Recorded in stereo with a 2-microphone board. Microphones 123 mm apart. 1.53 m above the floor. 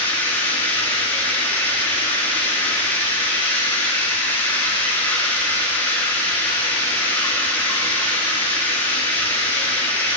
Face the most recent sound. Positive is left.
turn(degrees=15)  # may be behind; listen again after turning